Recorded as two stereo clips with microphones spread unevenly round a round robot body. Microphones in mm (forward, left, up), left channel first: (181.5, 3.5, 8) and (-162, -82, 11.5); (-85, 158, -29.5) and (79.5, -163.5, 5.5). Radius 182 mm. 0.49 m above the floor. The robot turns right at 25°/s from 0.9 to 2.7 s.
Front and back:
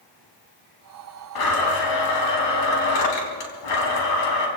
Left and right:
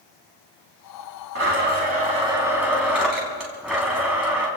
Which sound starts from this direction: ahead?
A blender, at 1.4 s.